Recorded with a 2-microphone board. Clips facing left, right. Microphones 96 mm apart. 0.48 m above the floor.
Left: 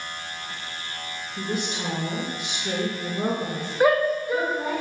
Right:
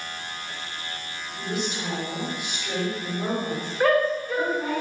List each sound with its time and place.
1.4 s a woman speaking: 45° left (ahead or behind), 3 m
3.8 s a shout: 10° left (ahead or behind), 0.8 m